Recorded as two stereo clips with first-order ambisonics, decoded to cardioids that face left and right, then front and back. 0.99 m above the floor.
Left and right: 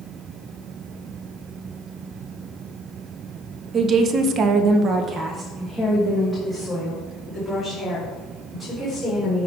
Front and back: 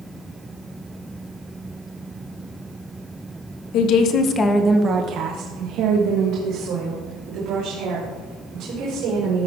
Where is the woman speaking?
30° right, 0.9 m; by 9.5 s 175° left, 3.5 m.